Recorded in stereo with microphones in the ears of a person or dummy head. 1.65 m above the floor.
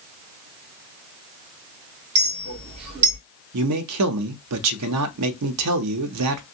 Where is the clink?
30° right (ahead or behind), 2 m.